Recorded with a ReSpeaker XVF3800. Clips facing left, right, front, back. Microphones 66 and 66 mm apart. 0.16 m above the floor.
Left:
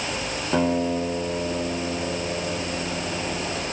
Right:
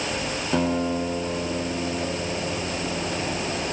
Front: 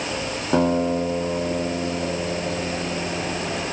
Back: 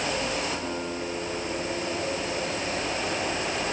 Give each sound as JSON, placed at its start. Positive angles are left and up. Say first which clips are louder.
{"t": 0.5, "sound": "a guitar", "louder": "left 2 dB, front 11 dB", "azimuth_deg": 10, "distance_m": 6.0}